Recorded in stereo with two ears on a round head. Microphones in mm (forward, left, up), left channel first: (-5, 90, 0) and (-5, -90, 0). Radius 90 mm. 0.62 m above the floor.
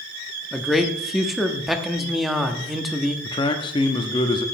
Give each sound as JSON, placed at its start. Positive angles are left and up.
{"t": 0.5, "sound": "a man speaking", "side_deg": 0, "distance_m": 0.8}
{"t": 3.2, "sound": "a man speaking", "side_deg": 25, "distance_m": 0.8}